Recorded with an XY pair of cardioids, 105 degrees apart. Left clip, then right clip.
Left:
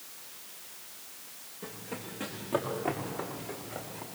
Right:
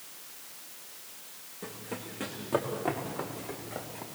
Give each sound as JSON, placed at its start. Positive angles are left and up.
{"t": 1.6, "sound": "running footsteps", "azimuth_deg": -20, "distance_m": 6.0}